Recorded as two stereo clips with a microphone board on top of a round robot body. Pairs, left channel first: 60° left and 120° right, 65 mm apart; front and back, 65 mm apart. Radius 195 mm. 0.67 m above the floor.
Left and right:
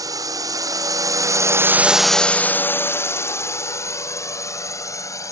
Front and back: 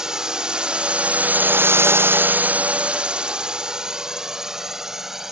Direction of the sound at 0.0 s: 100° right.